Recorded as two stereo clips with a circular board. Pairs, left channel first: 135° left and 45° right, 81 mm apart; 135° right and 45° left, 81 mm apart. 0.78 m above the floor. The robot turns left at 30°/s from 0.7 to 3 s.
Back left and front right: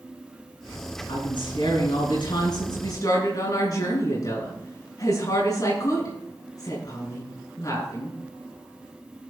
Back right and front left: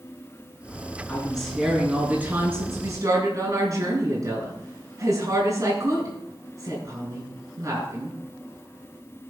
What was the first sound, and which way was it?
A woman speaking, 150° left.